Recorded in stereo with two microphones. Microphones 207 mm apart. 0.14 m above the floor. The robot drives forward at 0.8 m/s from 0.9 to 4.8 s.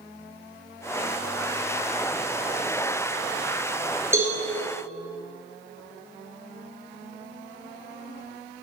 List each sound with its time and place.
4.1 s a cowbell: 15° right (ahead or behind), 2 m